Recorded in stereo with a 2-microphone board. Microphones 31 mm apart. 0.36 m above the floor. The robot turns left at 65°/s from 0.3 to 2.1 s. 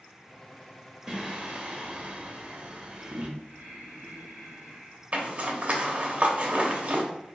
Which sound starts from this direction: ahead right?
Singing, at 1.1 s.